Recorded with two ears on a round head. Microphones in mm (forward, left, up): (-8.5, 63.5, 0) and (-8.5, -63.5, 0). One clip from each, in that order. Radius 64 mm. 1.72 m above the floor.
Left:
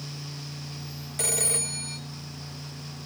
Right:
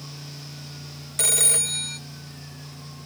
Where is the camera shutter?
No camera shutter in this recording.